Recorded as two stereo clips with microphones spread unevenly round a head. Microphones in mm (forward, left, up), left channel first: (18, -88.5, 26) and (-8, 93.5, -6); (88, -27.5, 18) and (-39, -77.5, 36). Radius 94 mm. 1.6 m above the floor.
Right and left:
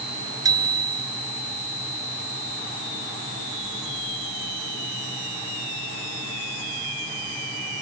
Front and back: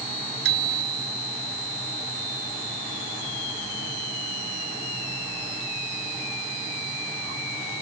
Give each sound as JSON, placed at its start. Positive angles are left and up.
{"t": 0.5, "sound": "a bicycle bell", "azimuth_deg": 170}